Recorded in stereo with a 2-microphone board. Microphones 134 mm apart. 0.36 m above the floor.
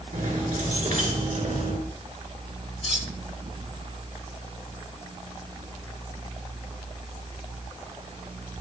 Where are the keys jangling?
70° right (ahead or behind), 4 m; by 1.8 s 65° right (ahead or behind), 3 m.